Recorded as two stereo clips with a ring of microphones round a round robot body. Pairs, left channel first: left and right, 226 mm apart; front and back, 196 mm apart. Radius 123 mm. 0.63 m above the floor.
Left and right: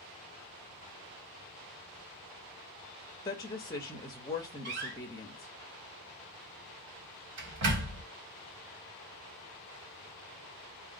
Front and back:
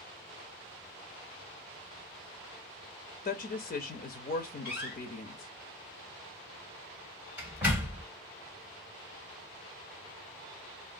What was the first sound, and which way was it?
A woman speaking, 25° left.